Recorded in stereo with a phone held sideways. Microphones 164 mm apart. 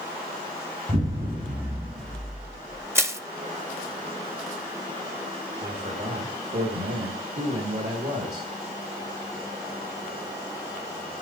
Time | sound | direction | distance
0.9 | an explosion | 70° right (ahead or behind) | 3 m
3.0 | crushing | 15° right (ahead or behind) | 0.7 m
5.6 | a man speaking | 80° right | 1.7 m